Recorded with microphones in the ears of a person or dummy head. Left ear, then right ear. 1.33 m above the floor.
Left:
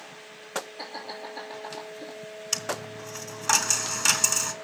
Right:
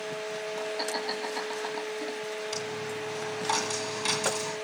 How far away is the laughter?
About 3.5 m.